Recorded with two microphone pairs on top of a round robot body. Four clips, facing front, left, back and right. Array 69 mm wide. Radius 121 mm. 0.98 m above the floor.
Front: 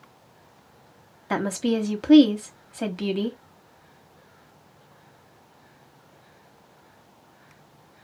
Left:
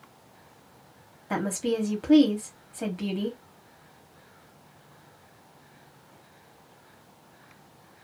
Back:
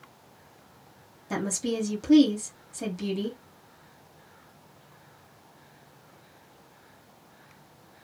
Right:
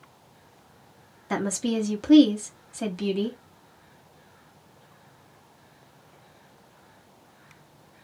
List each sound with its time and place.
1.3 s a woman speaking: straight ahead, 0.9 m